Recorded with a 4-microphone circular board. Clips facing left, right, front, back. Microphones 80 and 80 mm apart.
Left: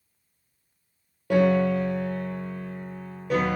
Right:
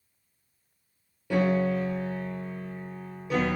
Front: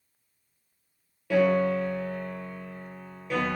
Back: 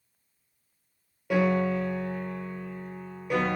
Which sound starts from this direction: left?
A piano, at 1.3 s.